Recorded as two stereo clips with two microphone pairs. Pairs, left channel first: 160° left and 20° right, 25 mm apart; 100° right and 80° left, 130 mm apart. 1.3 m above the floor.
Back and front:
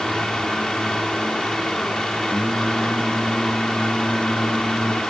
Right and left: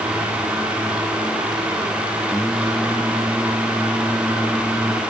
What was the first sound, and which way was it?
Singing, 170° left.